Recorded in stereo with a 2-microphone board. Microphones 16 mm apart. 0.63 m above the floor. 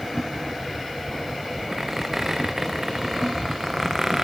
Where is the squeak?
20° right (ahead or behind), 3.5 m.